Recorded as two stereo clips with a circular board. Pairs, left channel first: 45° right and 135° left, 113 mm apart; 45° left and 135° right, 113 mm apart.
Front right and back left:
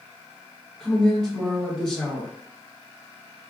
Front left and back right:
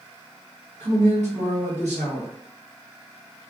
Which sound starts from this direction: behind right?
A man speaking, at 0.8 s.